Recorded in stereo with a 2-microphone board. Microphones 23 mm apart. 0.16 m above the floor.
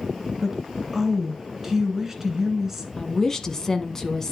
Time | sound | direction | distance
0.4 | a woman speaking | 10° right (ahead or behind) | 2.5 m
3.0 | a woman speaking | 20° left (ahead or behind) | 1.1 m